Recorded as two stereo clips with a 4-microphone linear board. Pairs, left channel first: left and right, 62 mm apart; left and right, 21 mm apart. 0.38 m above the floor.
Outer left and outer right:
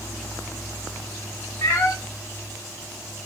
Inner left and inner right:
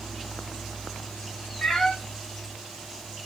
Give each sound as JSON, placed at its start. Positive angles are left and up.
{"t": 1.6, "sound": "a cat meowing", "side_deg": 45, "distance_m": 0.5}